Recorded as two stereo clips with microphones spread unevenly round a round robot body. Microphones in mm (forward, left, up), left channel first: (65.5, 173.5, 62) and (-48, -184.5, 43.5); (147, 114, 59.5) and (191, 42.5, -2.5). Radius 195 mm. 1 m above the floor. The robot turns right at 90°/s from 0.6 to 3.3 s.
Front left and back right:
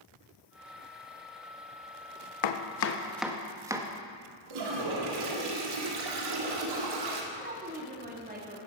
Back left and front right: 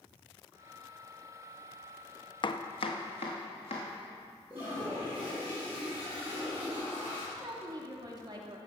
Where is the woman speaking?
40° right, 2.5 m.